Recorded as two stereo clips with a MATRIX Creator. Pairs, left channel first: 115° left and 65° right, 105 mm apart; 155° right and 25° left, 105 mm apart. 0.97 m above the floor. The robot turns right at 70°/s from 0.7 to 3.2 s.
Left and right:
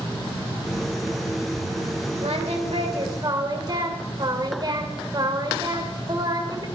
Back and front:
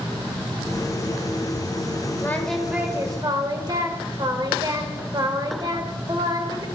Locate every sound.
2.2 s singing: 90° right, 2 m; by 6.7 s 20° right, 2 m